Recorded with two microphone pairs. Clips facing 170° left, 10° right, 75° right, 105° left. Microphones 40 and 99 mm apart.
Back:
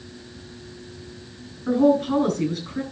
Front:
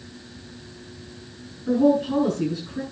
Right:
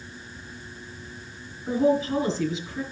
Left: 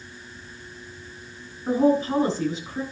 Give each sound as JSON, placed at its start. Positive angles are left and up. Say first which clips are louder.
{"t": 1.7, "sound": "a woman speaking", "louder": "back 1 dB, left 2 dB", "azimuth_deg": 145, "distance_m": 7.5}